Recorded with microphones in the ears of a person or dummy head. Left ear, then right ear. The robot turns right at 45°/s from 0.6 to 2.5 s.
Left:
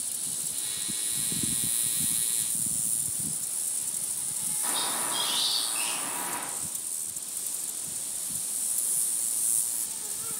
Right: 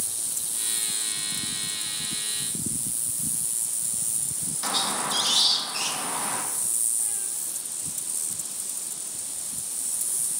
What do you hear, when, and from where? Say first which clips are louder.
4.6 s a squeak: right 6 dB; 85° right, 0.6 m